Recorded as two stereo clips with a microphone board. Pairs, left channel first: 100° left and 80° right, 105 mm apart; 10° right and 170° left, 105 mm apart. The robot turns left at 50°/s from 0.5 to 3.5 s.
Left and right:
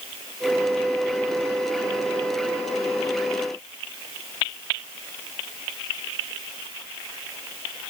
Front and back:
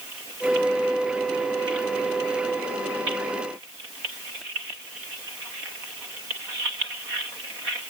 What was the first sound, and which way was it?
Only background noise.